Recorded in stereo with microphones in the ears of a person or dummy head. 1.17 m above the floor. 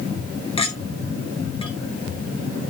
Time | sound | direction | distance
0.6 | a clink | 30° left (ahead or behind) | 1.7 m